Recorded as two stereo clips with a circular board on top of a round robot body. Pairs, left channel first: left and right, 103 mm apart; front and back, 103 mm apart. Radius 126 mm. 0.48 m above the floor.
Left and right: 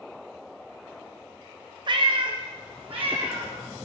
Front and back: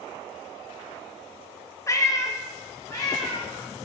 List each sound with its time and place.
1.9 s a cat meowing: 60° right, 0.6 m